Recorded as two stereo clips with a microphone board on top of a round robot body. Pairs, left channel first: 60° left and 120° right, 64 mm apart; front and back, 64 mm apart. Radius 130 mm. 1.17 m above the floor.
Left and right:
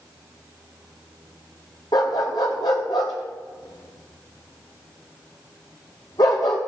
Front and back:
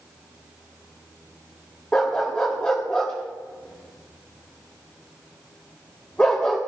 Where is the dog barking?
75° left, 0.7 m.